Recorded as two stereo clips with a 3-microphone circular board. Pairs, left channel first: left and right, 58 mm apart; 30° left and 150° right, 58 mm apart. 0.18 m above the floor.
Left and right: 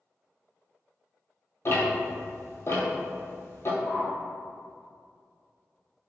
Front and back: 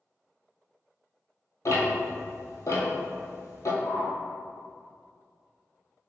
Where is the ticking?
50° left, 0.9 m.